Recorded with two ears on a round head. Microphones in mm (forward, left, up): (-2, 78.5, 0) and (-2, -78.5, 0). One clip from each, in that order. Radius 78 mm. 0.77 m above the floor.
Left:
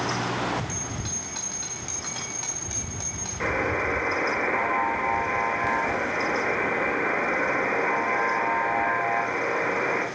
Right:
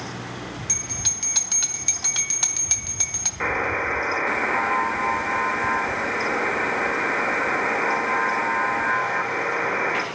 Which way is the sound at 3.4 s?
30° right (ahead or behind).